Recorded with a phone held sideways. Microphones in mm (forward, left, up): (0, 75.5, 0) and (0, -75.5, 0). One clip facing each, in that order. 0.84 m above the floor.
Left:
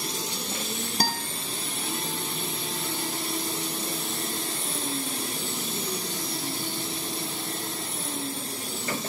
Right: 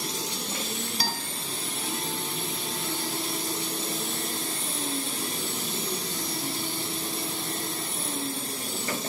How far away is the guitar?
About 1.5 m.